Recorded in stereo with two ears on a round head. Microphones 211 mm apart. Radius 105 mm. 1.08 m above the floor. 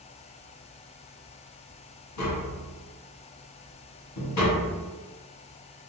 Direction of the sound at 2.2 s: 80° left.